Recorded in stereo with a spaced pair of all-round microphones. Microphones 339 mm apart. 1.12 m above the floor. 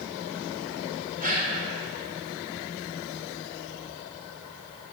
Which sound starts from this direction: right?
A gasp, at 1.2 s.